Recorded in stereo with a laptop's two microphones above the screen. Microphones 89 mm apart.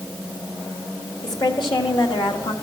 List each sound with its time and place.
1.2 s a woman speaking: 50° left (ahead or behind), 2.0 m; by 2.5 s 70° left (ahead or behind), 1.7 m